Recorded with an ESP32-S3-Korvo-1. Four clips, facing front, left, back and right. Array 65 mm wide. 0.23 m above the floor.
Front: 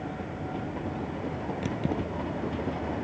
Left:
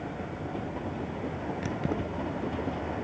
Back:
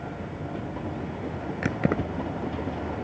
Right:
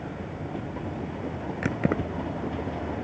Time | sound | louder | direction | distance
1.6 | keys jangling | right 7 dB, back 6 dB | 140° right | ?